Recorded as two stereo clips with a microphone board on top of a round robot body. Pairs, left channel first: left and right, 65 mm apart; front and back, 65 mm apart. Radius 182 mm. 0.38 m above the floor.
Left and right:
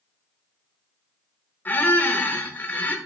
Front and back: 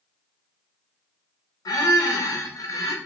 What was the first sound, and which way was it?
A squeak, 30° left.